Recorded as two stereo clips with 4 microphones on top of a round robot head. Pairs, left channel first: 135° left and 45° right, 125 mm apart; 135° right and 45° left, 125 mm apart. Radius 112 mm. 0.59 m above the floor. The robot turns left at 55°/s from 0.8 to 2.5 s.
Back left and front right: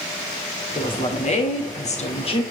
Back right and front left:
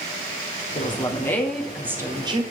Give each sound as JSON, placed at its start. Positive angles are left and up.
{"t": 0.8, "sound": "a woman speaking", "azimuth_deg": 180, "distance_m": 2.0}